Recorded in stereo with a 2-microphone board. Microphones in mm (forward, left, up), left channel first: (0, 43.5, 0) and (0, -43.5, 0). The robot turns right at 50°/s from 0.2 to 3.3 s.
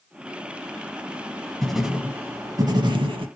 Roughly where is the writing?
Behind.